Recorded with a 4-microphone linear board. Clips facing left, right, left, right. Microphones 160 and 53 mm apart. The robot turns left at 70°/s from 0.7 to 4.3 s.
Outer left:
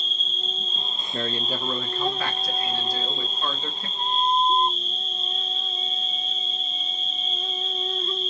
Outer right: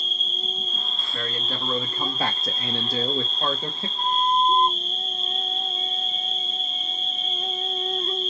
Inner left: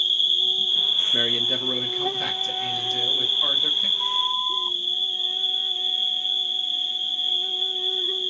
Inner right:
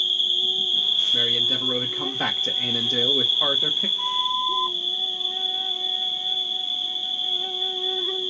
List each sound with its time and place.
0.0 s an insect: 170° right, 0.9 m; by 8.3 s 60° right, 0.9 m
1.1 s a man speaking: 40° left, 0.7 m; by 3.9 s 150° right, 0.7 m
4.0 s a flute: 30° right (ahead or behind), 1.4 m; by 4.8 s 55° right (ahead or behind), 1.4 m